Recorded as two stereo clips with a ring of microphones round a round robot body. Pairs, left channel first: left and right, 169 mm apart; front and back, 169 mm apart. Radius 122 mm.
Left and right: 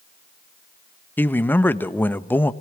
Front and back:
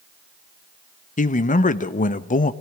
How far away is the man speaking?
About 1.2 m.